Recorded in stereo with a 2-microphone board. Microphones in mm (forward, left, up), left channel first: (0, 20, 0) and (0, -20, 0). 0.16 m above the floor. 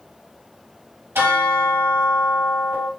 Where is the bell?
65° right (ahead or behind), 3.5 m.